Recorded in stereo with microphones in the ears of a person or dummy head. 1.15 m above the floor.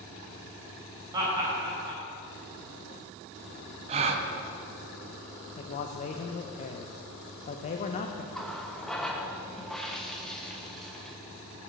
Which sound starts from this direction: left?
A man speaking, at 5.6 s.